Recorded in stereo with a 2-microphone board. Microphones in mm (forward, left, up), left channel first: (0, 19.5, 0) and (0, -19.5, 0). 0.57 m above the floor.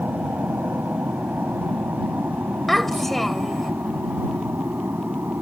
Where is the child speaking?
5° left (ahead or behind).